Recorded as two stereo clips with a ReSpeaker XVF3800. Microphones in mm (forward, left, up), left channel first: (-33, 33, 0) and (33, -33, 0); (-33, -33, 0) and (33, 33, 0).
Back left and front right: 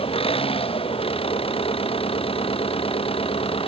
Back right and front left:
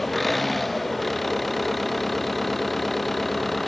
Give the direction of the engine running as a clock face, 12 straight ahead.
7 o'clock.